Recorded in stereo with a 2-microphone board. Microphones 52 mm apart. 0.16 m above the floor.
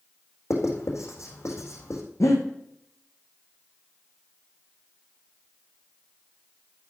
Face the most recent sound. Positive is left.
turn(degrees=80)